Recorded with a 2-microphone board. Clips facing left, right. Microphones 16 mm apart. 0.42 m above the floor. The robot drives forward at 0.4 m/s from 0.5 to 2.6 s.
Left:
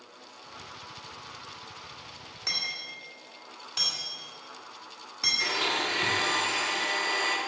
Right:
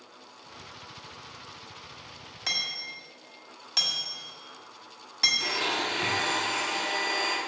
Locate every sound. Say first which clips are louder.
2.5 s hammering: right 1 dB; 65° right (ahead or behind), 1.6 m
5.4 s a blender: left 1 dB; 10° left (ahead or behind), 1.8 m